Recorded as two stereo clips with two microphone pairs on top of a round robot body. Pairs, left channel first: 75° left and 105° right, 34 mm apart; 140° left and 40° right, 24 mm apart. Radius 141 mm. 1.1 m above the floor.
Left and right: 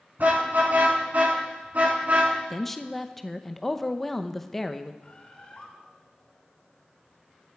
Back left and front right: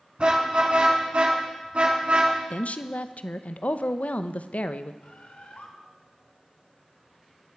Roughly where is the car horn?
Right.